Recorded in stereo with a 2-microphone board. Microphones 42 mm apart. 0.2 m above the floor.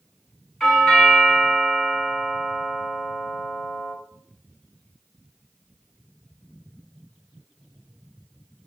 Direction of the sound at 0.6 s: 5° left (ahead or behind).